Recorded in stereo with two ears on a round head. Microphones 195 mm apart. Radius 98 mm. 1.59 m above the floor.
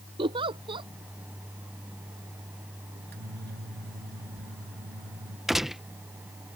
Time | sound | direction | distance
0.2 | a giggle | 25° right (ahead or behind) | ?
3.0 | a microwave | 50° right (ahead or behind) | ?
5.5 | a gunshot | centre (ahead or behind) | ?